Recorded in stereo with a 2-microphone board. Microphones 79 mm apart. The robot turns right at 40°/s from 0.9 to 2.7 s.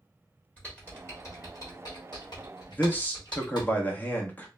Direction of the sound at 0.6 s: 20° left (ahead or behind).